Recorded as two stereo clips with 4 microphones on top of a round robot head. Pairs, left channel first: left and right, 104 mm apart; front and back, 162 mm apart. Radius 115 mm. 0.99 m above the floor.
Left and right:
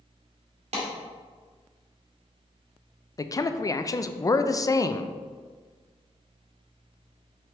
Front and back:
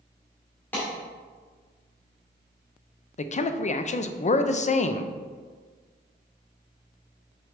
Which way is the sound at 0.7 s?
80° right.